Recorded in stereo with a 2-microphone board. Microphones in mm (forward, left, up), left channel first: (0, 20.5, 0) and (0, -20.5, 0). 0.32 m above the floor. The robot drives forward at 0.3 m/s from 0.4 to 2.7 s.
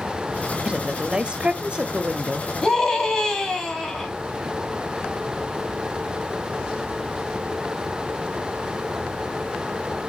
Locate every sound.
0.7 s a woman speaking: 25° right (ahead or behind), 1.2 m
2.6 s a scream: 15° left (ahead or behind), 3 m